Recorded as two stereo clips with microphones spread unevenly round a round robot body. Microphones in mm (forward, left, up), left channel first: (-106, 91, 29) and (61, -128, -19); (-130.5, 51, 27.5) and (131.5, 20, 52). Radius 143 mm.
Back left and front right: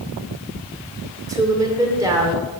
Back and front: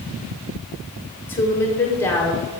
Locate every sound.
1.3 s a woman speaking: 115° right, 1.3 m